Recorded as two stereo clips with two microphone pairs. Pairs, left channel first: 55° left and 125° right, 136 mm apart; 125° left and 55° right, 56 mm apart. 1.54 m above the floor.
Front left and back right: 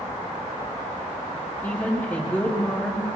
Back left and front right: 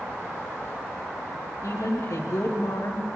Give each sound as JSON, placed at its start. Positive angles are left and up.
{"t": 1.6, "sound": "a woman speaking", "azimuth_deg": 135, "distance_m": 3.5}